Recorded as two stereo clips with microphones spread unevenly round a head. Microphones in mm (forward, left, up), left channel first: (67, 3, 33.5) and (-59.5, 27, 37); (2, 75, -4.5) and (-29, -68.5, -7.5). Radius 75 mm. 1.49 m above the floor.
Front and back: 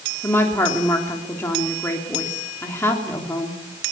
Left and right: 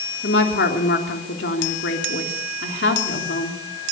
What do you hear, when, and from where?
0.2 s a woman speaking: 60° left, 3.5 m